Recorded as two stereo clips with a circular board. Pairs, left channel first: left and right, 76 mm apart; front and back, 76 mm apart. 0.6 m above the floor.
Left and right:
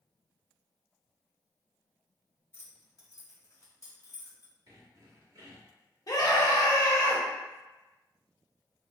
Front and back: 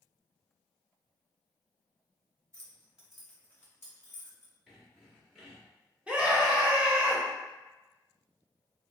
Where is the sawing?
90° right, 1.5 m.